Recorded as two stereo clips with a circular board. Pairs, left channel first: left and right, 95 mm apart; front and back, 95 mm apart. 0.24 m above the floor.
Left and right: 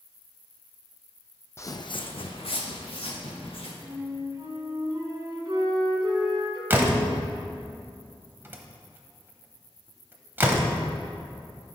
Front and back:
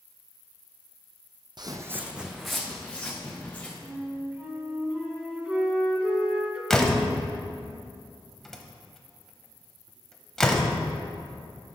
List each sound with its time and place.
1.6 s footsteps: 150° left, 0.5 m; by 3.7 s 75° left, 2 m
3.8 s a flute: 110° right, 1.5 m
6.7 s a door slam: 80° right, 0.8 m